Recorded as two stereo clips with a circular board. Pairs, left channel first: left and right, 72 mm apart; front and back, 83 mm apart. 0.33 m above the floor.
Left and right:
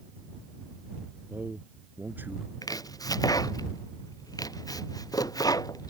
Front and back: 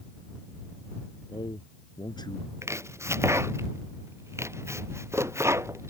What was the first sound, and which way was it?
A man speaking, 25° right.